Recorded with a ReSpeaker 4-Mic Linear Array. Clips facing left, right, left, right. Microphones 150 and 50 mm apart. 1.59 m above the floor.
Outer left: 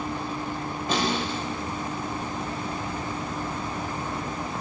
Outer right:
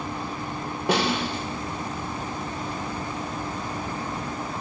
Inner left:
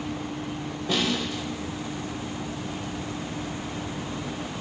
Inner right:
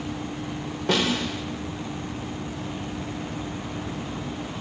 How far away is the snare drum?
About 6 m.